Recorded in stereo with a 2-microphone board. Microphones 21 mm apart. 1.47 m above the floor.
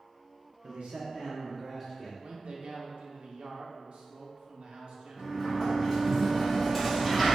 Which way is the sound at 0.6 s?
75° right (ahead or behind).